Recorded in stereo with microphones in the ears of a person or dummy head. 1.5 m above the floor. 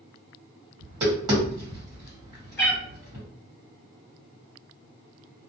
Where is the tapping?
25° right (ahead or behind), 1.3 m.